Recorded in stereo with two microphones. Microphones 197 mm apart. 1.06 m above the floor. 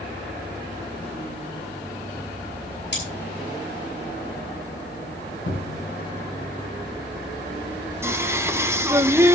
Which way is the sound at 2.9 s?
65° left (ahead or behind).